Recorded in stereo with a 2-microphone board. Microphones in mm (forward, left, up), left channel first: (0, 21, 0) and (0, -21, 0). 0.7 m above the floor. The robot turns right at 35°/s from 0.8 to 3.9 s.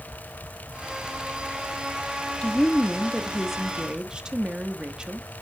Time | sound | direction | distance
2.4 | a woman speaking | 155° left | 1.0 m